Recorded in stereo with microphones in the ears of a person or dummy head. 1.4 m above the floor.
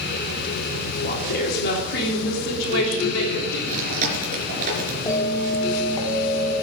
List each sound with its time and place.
1.0 s a woman speaking: 55° left (ahead or behind), 3.5 m; by 3.6 s 85° left, 3.5 m
3.7 s chewing: 50° right (ahead or behind), 3 m
5.1 s a bell: 25° left (ahead or behind), 2.5 m